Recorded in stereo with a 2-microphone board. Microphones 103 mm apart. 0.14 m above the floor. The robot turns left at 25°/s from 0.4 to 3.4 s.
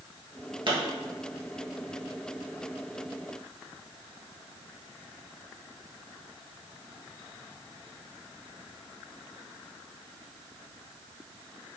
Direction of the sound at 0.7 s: 50° right (ahead or behind).